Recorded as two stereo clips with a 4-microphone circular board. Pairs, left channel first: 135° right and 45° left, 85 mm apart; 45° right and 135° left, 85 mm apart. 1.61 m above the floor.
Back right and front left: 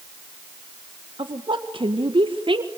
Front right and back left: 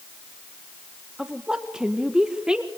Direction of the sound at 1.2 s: 55° left.